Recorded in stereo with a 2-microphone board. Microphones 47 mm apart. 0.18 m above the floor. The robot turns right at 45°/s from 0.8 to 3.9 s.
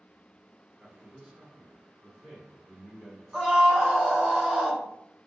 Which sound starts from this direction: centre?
A scream, at 3.3 s.